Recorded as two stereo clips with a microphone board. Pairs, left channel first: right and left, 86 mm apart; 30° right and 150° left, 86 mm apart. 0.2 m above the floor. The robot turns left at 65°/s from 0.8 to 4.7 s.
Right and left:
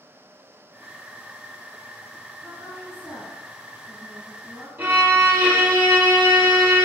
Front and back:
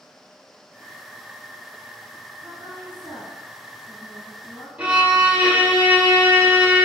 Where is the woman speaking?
155° right, 1.4 m; by 4.7 s 55° left, 1.4 m.